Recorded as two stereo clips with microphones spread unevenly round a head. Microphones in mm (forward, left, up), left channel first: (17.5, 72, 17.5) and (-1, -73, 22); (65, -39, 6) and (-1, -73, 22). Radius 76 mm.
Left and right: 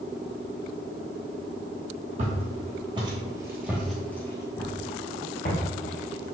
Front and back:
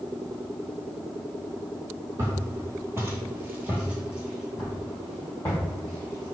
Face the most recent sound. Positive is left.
turn(degrees=100)